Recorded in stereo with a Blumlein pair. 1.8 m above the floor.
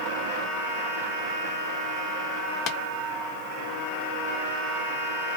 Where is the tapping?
40° left, 0.6 m.